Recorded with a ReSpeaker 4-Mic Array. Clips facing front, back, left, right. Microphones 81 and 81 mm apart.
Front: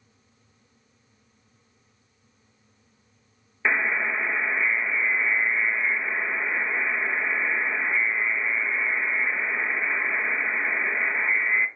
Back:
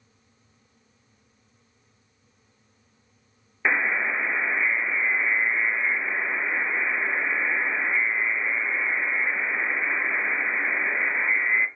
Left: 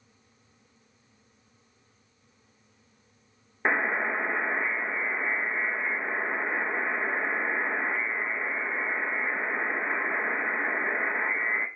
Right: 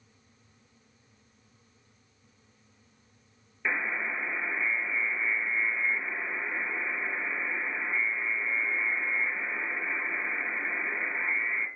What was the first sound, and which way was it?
A buzzer, 100° left.